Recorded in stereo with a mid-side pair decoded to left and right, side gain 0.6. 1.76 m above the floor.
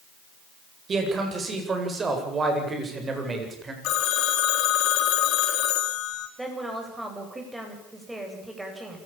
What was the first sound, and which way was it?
A man speaking, 35° right.